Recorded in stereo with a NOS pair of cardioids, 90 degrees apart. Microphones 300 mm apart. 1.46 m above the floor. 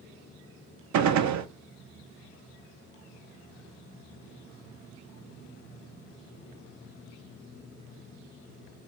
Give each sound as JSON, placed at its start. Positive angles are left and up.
{"t": 0.9, "sound": "a gunshot", "azimuth_deg": -65, "distance_m": 0.6}